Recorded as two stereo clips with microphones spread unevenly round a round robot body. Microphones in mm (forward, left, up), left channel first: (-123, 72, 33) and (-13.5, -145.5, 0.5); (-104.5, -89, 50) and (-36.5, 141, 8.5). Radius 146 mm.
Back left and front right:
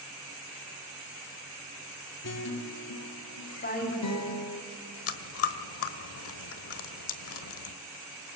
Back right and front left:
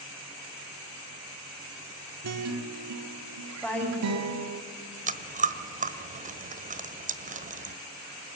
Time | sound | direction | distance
2.2 | a guitar | 75° left | 1.4 m
3.6 | a woman speaking | 160° left | 5.5 m
5.1 | chewing | 135° left | 1.3 m